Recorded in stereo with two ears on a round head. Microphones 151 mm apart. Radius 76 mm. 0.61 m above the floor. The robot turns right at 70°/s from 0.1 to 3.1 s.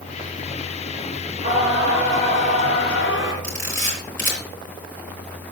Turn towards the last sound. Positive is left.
turn(degrees=15)  # may be behind; listen again after turning